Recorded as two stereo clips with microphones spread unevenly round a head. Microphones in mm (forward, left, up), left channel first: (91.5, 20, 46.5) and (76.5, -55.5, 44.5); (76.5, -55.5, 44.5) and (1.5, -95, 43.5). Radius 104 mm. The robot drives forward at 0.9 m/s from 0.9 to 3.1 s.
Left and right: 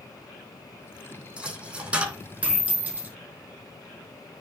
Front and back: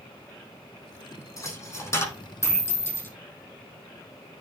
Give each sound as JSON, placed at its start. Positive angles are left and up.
{"t": 1.4, "sound": "a dropped coin", "azimuth_deg": -25, "distance_m": 5.5}